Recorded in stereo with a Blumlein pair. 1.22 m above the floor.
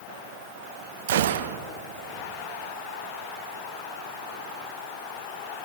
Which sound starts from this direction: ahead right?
A gunshot, at 1.1 s.